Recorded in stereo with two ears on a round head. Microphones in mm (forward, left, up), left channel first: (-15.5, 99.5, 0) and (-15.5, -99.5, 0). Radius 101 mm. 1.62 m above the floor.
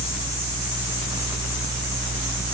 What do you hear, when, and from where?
Only background noise.